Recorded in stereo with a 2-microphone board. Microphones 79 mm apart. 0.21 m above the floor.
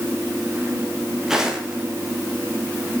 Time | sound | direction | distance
1.3 | footsteps | 5° right (ahead or behind) | 5.5 m